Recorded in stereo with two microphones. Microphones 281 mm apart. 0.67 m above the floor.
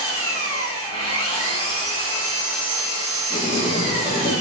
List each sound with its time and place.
0.0 s an engine running: 55° right (ahead or behind), 0.9 m
3.3 s writing: 35° right (ahead or behind), 1.3 m